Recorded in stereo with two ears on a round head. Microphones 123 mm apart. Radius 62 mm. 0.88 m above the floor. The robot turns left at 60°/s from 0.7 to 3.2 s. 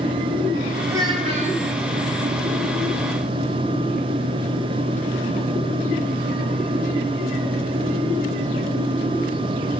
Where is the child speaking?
20° right, 3.5 m; by 1.6 s 65° right, 3.5 m.